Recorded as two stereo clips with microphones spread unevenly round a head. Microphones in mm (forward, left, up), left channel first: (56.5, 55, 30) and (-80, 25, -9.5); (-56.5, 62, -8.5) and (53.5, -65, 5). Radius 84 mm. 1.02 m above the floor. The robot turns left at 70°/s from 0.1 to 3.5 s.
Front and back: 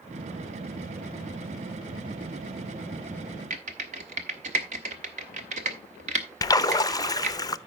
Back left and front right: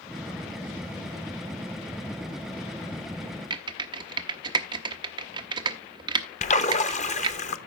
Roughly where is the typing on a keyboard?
Right.